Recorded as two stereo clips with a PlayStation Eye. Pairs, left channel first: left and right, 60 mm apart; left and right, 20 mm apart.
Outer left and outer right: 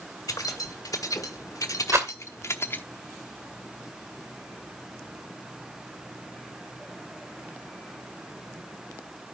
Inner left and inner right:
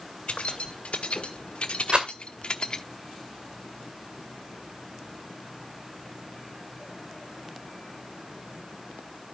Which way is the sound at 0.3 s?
85° left.